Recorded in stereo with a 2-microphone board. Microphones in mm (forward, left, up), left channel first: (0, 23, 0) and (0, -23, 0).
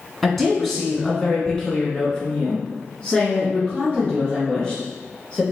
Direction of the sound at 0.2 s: Centre (ahead or behind).